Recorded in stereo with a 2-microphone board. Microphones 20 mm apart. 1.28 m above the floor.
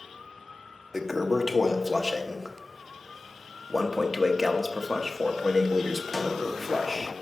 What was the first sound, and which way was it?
A toilet flushing, 5° right (ahead or behind).